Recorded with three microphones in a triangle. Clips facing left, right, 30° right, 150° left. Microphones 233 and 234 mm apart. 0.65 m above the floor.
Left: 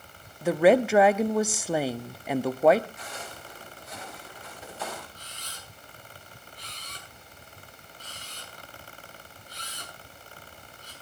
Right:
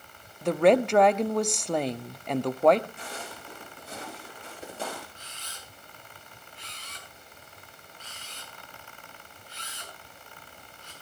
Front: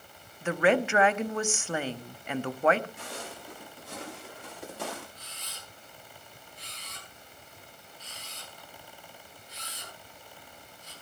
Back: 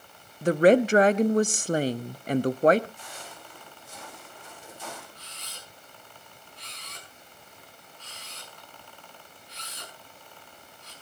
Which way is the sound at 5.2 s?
140° left.